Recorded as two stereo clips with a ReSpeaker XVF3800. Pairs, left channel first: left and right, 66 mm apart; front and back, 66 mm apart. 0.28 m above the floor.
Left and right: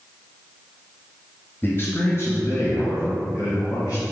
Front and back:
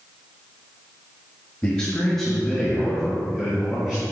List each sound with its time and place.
1.6 s a man speaking: 65° left, 1.3 m; by 4.0 s 105° left, 2.5 m